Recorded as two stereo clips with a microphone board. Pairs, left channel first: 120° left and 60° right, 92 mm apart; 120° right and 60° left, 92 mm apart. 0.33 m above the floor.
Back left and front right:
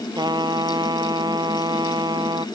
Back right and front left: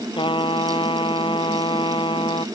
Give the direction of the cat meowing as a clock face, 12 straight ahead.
I don't hear a cat meowing.